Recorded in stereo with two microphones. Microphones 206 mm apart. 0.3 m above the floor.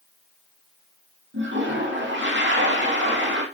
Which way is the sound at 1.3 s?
65° right (ahead or behind).